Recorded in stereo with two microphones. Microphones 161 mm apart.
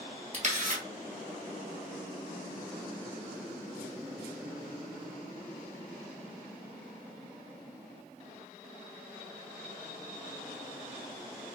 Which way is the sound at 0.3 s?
50° right (ahead or behind).